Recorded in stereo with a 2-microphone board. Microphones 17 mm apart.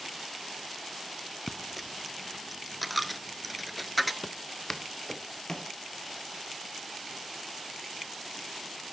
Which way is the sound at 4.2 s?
15° left (ahead or behind).